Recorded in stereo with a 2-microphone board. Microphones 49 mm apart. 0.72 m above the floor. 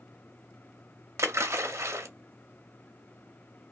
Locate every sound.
1.2 s a splash: 70° right (ahead or behind), 0.6 m